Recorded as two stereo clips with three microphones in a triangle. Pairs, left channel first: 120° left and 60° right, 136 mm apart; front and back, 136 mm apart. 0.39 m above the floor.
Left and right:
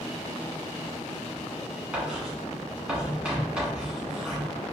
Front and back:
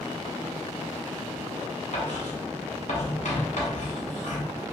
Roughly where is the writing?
Ahead.